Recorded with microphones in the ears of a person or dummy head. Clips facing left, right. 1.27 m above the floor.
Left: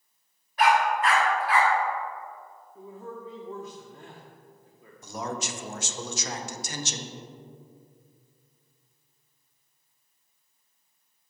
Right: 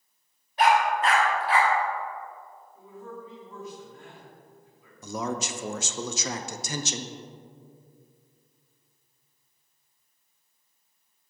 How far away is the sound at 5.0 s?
About 0.5 m.